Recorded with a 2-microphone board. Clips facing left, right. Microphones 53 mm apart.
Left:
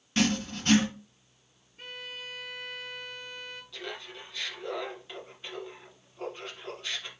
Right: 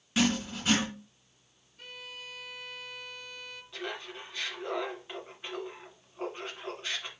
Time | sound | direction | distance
0.2 | writing | 5° right (ahead or behind) | 1.9 m
1.8 | a violin | 40° left (ahead or behind) | 1.0 m
3.7 | laughter | 25° right (ahead or behind) | 1.3 m